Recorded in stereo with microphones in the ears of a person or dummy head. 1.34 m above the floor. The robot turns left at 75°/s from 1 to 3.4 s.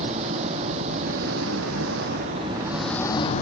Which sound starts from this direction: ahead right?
An engine running, at 0.0 s.